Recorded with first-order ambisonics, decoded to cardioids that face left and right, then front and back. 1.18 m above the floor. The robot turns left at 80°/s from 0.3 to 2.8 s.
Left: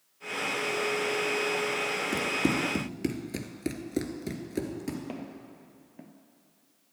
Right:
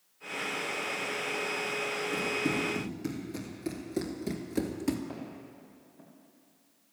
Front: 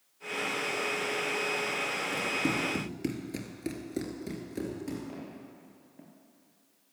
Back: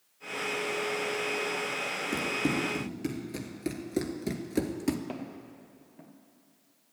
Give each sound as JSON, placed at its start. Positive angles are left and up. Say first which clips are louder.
{"t": 2.1, "sound": "running footsteps", "louder": "left 1 dB, back 2 dB", "azimuth_deg": 115, "distance_m": 2.0}
{"t": 5.1, "sound": "footsteps", "louder": "left 2 dB, back 3 dB", "azimuth_deg": 135, "distance_m": 2.0}